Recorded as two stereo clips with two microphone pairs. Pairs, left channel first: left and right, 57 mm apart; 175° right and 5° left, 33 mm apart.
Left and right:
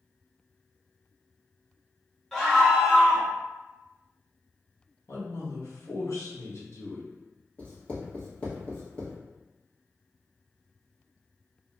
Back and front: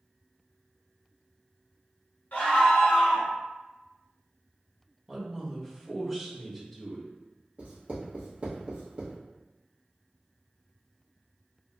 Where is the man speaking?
100° left, 1.1 m.